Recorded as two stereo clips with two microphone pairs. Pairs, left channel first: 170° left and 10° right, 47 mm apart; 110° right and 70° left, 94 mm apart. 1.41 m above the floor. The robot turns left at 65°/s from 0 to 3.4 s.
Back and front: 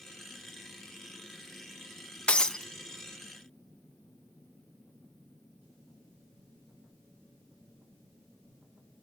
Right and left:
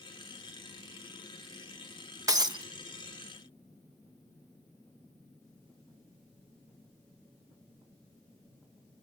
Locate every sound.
2.3 s breaking glass: 115° left, 0.8 m; by 2.6 s 90° left, 0.8 m